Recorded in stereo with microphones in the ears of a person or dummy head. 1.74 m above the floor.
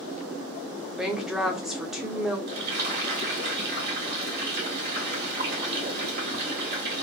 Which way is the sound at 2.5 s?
55° right (ahead or behind).